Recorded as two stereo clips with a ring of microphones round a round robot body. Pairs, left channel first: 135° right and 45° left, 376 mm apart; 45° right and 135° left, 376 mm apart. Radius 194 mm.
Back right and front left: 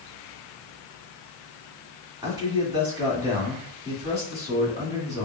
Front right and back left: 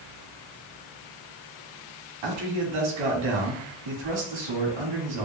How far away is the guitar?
I don't hear a guitar.